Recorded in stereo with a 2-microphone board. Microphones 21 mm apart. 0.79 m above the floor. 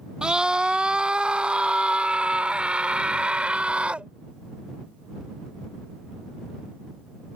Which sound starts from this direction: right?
A scream, at 0.2 s.